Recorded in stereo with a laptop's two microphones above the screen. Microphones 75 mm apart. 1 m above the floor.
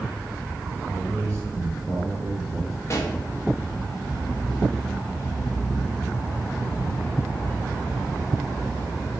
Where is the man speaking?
25° left (ahead or behind), 5 m; by 2.8 s 15° right (ahead or behind), 3.5 m.